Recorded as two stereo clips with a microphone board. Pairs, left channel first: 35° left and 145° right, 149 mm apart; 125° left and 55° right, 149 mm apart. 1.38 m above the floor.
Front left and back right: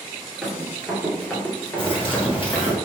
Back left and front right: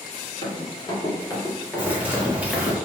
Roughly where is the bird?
Ahead.